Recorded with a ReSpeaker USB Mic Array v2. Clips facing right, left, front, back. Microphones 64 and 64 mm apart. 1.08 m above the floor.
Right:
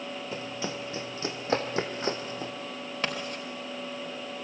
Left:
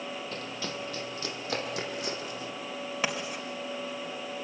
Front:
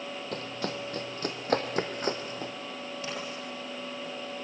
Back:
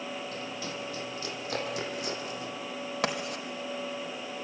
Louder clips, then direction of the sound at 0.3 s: Right 2 dB, front 2 dB; 20° right.